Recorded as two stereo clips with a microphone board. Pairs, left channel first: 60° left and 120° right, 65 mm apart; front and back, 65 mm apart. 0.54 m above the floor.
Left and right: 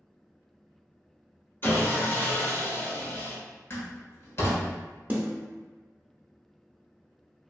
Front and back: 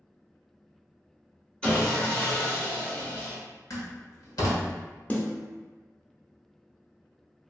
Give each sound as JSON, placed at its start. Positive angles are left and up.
{"t": 1.6, "sound": "sawing", "azimuth_deg": 65, "distance_m": 1.2}
{"t": 3.7, "sound": "a door slam", "azimuth_deg": 15, "distance_m": 1.1}
{"t": 5.1, "sound": "a snare drum", "azimuth_deg": -65, "distance_m": 0.7}